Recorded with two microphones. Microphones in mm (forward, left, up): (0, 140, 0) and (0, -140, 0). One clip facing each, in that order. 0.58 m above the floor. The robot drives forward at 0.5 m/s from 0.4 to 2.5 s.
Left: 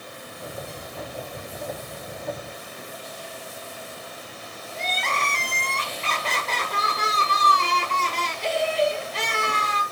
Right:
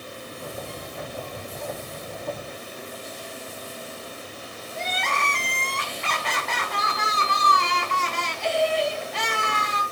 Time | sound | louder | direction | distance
4.8 | crying | even | 35° left (ahead or behind) | 1.2 m